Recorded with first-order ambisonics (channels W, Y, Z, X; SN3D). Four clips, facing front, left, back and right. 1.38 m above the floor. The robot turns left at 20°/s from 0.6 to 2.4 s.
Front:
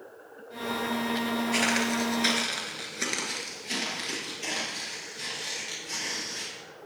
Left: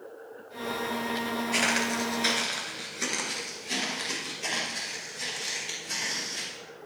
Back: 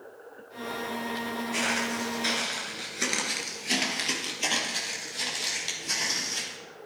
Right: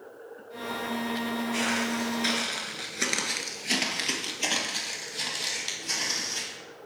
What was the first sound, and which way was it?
Footsteps, 55° left.